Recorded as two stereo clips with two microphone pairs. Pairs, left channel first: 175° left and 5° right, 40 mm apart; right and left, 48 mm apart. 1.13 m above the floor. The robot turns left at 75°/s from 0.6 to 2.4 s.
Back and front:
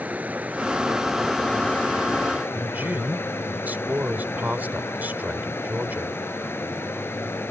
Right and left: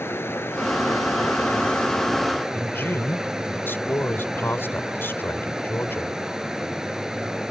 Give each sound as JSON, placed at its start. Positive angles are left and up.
{"t": 0.0, "sound": "running water", "azimuth_deg": -55}
{"t": 2.5, "sound": "a man speaking", "azimuth_deg": -50}